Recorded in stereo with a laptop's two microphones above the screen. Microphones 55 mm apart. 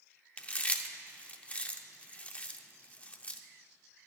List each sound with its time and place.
0.4 s chewing: 25° left (ahead or behind), 0.7 m